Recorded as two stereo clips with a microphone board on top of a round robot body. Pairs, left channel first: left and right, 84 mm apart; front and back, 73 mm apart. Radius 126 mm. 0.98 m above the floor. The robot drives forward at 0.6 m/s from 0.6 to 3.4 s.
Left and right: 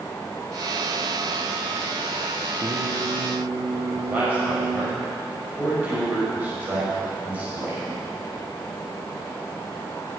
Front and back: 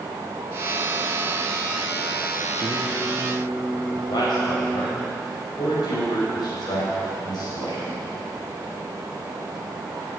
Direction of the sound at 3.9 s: 20° right.